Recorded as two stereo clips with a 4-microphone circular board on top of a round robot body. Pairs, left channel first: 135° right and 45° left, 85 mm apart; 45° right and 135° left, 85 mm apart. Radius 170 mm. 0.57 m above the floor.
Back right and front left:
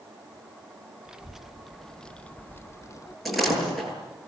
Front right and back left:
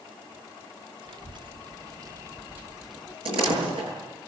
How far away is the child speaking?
About 1.2 m.